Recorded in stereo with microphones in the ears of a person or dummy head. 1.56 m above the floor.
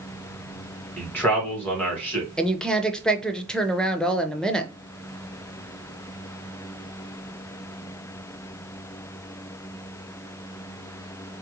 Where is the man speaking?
5° left (ahead or behind), 1.5 m.